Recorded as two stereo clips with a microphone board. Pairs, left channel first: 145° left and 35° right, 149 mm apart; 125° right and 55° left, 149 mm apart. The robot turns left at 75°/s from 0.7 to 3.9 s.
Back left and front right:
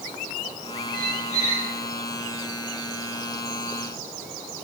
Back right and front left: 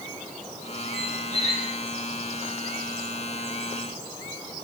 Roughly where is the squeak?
Behind left.